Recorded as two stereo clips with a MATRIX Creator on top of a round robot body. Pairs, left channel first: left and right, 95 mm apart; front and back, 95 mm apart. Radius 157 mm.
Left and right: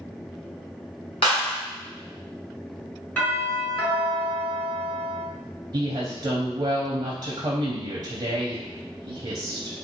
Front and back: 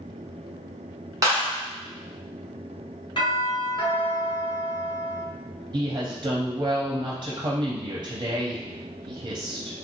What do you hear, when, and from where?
1.2 s a clap: 125° left, 0.7 m
3.2 s a doorbell: 20° left, 1.8 m
5.7 s a woman speaking: 130° right, 0.5 m